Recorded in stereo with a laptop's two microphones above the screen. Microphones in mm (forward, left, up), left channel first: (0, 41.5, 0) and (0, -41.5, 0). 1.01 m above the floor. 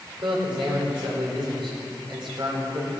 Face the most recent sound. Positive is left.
turn(degrees=-80)